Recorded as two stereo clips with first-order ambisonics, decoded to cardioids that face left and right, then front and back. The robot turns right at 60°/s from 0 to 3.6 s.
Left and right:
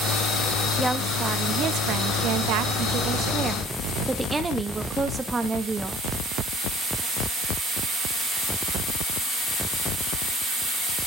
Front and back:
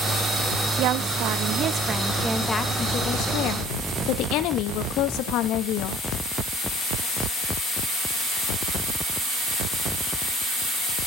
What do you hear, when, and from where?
0.8 s a woman speaking: straight behind, 0.9 m; by 6.0 s 10° right, 0.9 m